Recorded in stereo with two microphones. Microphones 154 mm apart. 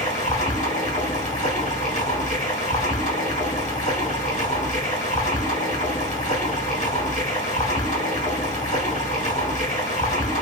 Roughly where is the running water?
Left.